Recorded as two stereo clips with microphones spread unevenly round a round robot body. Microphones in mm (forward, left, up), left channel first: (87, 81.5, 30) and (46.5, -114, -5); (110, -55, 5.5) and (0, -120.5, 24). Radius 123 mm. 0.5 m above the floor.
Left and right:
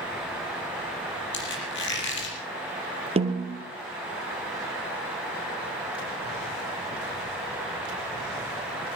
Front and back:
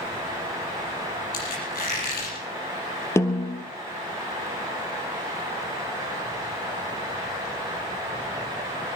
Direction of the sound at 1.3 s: 55° left.